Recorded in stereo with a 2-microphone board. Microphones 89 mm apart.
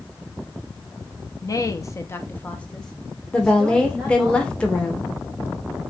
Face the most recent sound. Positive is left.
turn(degrees=10)  # may be behind; listen again after turning